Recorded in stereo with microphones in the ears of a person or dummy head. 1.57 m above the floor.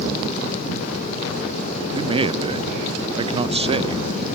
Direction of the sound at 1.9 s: 25° right (ahead or behind).